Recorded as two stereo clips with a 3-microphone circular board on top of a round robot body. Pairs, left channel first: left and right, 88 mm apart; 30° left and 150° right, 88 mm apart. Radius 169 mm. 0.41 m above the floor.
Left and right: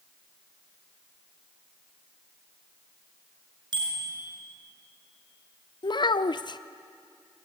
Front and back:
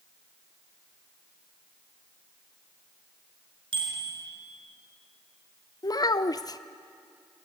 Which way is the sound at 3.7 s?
125° right.